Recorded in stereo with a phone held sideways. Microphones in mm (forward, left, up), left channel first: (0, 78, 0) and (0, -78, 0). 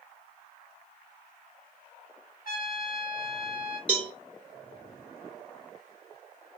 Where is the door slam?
No door slam in this recording.